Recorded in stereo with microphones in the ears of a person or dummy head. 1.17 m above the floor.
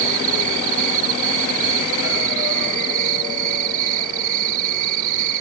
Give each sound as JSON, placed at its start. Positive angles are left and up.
{"t": 0.0, "sound": "an insect", "side_deg": -45}